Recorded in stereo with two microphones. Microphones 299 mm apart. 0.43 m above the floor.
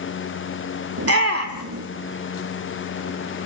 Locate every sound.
1.0 s a shout: 50° right (ahead or behind), 1.6 m